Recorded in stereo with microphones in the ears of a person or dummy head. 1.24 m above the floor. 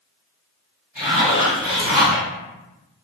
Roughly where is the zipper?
Centre.